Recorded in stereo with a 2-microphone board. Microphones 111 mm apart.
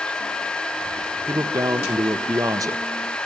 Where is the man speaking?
30° right (ahead or behind), 0.6 m.